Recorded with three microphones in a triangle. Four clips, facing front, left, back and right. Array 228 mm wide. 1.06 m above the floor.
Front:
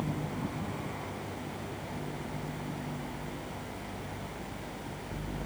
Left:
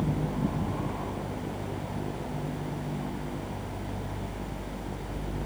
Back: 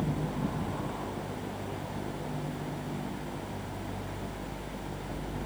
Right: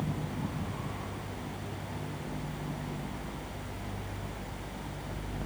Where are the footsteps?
No footsteps in this recording.